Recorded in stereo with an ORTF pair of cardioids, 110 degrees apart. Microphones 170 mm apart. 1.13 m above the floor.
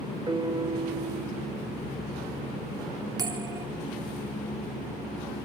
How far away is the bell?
About 3.5 m.